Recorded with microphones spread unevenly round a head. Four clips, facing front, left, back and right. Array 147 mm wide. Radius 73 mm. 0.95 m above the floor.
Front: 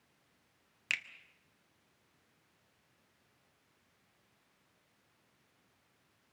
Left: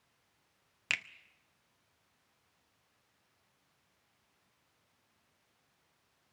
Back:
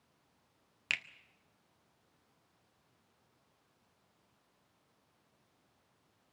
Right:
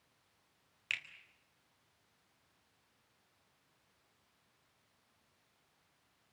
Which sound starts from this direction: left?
A finger snap, at 0.9 s.